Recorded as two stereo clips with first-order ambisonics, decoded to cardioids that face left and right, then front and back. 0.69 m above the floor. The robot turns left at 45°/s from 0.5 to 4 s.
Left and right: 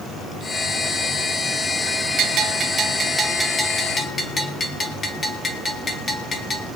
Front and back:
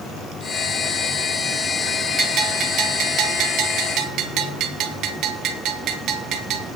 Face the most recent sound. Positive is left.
turn(degrees=155)